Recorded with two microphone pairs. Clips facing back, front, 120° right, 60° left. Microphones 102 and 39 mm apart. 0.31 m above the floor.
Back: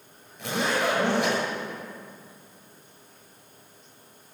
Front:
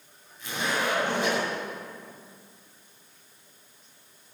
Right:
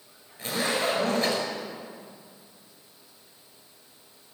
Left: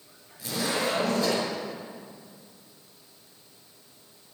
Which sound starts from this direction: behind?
A zipper, at 0.4 s.